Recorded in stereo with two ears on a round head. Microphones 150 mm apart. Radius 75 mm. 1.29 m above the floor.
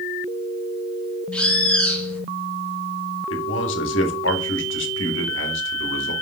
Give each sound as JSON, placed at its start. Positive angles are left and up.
{"t": 1.3, "sound": "a bird", "side_deg": 5, "distance_m": 2.0}
{"t": 3.3, "sound": "a man speaking", "side_deg": 80, "distance_m": 1.8}